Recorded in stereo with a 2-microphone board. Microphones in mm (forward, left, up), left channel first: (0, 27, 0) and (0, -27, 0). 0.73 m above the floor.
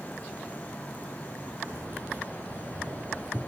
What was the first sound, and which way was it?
Keys jangling, 50° right (ahead or behind).